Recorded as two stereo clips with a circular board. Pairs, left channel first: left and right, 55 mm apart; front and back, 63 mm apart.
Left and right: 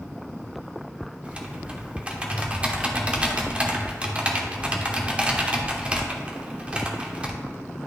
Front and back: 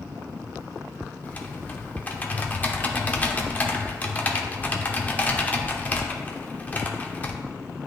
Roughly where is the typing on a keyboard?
Ahead right.